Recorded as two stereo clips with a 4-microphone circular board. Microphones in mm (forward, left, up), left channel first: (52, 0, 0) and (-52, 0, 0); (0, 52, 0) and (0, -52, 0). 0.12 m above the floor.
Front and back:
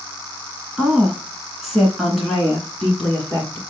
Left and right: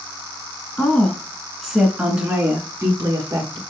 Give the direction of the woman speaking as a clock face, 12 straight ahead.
8 o'clock.